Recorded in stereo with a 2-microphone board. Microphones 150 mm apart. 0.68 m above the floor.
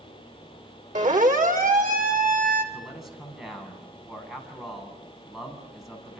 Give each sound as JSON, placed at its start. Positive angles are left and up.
{"t": 0.9, "sound": "a siren", "side_deg": -55, "distance_m": 3.0}
{"t": 2.7, "sound": "a man speaking", "side_deg": 0, "distance_m": 6.0}